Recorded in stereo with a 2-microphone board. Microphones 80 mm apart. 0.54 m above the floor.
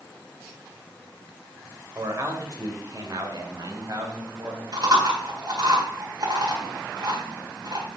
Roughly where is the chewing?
Right.